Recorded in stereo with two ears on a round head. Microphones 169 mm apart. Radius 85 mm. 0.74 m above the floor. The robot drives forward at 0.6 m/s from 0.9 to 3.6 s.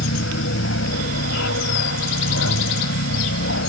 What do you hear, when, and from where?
0.0 s an aircraft: 75° left (ahead or behind)